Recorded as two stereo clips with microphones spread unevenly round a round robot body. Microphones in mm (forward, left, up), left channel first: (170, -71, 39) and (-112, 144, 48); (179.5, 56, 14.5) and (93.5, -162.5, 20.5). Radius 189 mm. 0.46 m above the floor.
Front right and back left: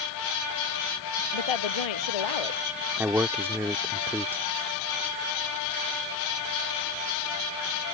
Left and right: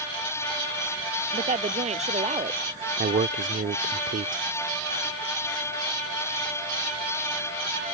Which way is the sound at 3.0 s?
135° right.